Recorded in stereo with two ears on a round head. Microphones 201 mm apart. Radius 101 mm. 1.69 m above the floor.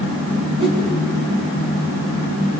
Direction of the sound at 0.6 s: 75° right (ahead or behind).